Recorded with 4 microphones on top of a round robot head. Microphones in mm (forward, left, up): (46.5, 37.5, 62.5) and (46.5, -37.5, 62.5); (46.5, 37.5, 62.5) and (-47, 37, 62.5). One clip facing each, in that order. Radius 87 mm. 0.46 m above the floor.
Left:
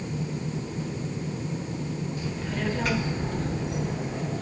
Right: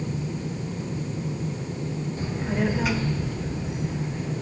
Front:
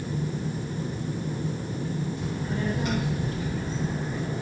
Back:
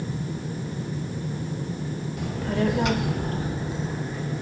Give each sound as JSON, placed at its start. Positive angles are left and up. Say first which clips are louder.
{"t": 2.2, "sound": "a child speaking", "louder": "right 8 dB, back 4 dB", "azimuth_deg": -150, "distance_m": 1.7}